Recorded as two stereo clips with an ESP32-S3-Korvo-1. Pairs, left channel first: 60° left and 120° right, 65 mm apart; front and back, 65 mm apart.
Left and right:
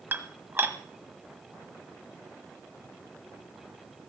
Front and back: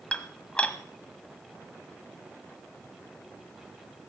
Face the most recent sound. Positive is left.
turn(degrees=-70)